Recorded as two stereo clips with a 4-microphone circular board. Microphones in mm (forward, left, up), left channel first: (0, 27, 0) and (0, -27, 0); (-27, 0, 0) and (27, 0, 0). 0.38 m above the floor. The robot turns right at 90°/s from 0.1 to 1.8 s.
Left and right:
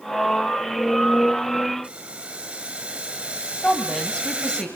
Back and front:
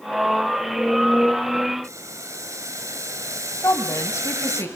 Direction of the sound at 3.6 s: 165° left.